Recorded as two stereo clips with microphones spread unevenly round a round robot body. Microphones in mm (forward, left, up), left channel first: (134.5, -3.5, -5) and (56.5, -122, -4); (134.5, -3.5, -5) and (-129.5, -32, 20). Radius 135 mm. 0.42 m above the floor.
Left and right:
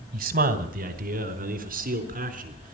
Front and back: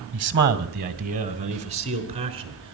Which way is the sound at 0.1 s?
125° right.